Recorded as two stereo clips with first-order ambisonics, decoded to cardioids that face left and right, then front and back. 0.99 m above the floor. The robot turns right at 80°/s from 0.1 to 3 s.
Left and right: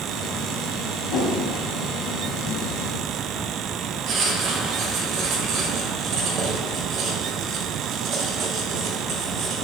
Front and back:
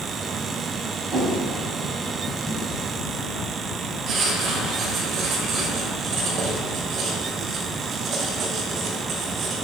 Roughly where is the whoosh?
Behind left.